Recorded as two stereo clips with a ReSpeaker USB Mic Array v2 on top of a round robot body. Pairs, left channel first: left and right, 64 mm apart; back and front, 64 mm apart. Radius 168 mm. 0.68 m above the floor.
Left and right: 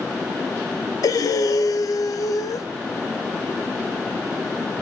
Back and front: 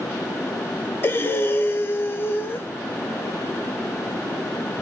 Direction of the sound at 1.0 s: 125° left.